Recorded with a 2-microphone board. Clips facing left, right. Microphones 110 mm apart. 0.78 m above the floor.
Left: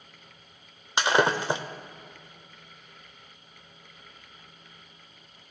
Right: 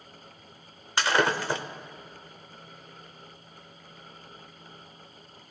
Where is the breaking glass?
20° left (ahead or behind), 0.7 m.